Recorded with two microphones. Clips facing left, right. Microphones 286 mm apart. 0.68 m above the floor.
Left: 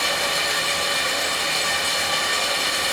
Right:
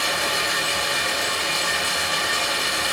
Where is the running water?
15° right (ahead or behind), 1.6 m.